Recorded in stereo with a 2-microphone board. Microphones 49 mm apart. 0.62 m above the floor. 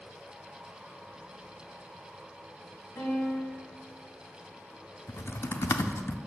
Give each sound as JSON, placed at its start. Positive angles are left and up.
{"t": 3.0, "sound": "a piano", "side_deg": 70, "distance_m": 3.0}
{"t": 5.1, "sound": "typing on a keyboard", "side_deg": 70, "distance_m": 0.6}